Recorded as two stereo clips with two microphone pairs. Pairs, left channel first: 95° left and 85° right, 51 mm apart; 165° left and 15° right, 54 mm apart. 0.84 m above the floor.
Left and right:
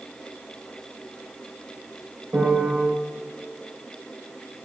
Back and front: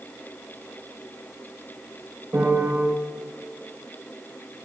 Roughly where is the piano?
Ahead right.